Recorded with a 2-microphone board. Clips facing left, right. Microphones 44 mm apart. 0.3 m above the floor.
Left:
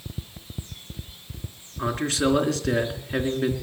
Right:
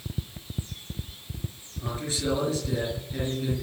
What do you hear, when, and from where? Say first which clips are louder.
1.8 s a man speaking: left 7 dB; 70° left (ahead or behind), 3.5 m